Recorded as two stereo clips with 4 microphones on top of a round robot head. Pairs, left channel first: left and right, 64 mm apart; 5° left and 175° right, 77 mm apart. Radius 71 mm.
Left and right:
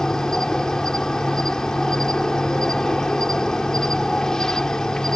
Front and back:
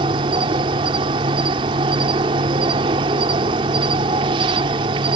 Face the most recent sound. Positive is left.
turn(degrees=175)